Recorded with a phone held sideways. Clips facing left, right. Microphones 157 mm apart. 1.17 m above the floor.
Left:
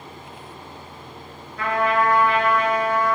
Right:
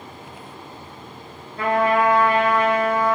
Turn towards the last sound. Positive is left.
turn(degrees=-35)  # may be behind; listen again after turning